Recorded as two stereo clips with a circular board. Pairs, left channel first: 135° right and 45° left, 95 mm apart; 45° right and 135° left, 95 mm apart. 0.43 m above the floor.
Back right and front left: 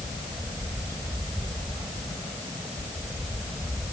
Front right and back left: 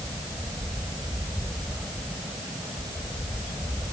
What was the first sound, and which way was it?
Only background noise.